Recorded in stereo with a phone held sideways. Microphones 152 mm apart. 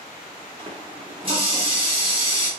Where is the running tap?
35° right (ahead or behind), 3 m.